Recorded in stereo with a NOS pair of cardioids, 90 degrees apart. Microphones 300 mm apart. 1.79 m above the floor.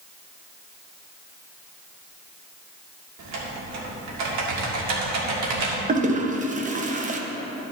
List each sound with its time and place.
3.2 s typing on a keyboard: 65° right, 2.0 m
5.9 s a toilet flushing: 25° right, 0.9 m